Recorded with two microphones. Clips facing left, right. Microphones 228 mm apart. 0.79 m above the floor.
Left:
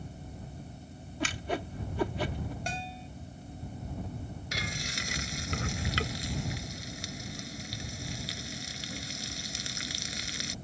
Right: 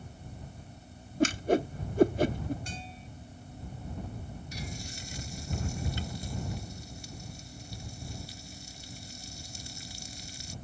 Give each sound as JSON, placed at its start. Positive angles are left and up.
{"t": 1.2, "sound": "a whoosh", "side_deg": -45}
{"t": 2.7, "sound": "a bell", "side_deg": 75}
{"t": 4.5, "sound": "frying", "side_deg": 80}